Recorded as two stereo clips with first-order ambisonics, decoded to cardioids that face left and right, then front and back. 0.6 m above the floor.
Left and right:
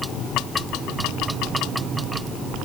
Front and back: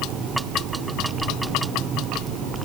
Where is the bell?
I don't hear a bell.